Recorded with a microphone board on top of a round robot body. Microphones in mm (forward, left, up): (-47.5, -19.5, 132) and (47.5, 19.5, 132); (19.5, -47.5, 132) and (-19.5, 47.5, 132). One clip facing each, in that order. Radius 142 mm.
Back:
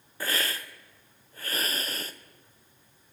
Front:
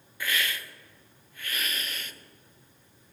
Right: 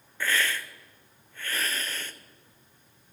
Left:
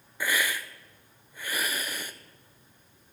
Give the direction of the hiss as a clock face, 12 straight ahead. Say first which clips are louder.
Even, right 1 dB; 6 o'clock.